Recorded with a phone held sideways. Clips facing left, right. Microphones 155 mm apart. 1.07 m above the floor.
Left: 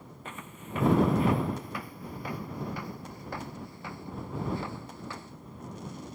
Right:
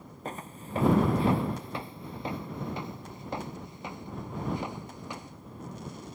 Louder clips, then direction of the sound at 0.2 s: Right 4 dB; 35° right (ahead or behind).